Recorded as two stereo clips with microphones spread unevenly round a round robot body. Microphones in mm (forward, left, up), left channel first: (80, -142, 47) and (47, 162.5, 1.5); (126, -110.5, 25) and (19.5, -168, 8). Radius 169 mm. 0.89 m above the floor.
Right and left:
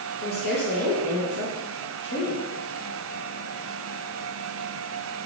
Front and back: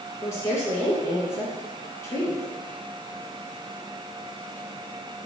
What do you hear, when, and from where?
0.2 s a woman speaking: 45° right, 0.8 m